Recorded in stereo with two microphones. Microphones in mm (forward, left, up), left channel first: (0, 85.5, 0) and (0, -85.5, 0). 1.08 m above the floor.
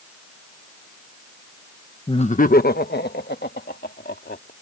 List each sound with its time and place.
2.1 s laughter: 30° left (ahead or behind); by 4.5 s 70° left (ahead or behind)